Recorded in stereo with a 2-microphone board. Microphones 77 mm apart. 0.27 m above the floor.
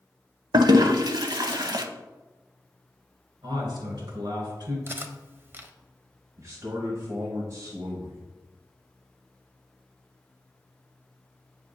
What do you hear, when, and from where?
0.5 s a toilet flushing: 60° right (ahead or behind), 0.5 m
3.4 s a man speaking: 70° right (ahead or behind), 2.5 m
4.9 s cutlery clinking: 30° right (ahead or behind), 0.5 m
6.4 s a man speaking: 45° right (ahead or behind), 1.2 m